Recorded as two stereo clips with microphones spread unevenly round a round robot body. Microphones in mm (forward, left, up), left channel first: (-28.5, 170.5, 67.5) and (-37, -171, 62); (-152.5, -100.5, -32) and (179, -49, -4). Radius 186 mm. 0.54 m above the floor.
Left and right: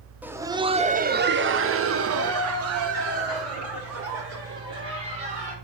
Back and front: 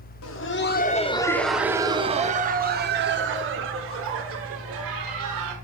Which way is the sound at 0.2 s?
175° right.